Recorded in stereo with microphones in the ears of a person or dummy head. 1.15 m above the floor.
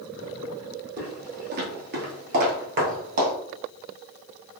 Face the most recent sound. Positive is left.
turn(degrees=-45)  # may be behind; listen again after turning